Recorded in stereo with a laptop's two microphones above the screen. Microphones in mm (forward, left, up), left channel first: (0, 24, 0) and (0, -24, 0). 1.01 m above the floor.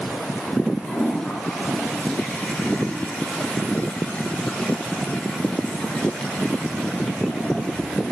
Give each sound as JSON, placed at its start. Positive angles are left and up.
{"t": 0.8, "sound": "a toilet flushing", "side_deg": 30, "distance_m": 5.0}